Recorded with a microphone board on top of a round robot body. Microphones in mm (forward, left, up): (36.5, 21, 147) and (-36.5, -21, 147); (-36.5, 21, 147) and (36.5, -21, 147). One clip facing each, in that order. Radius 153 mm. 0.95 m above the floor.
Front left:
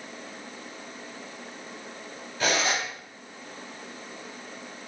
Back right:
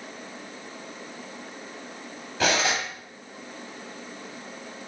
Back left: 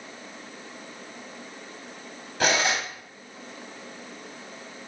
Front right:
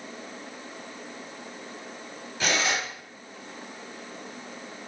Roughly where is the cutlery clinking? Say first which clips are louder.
Back right 2 dB, back left 3 dB; behind.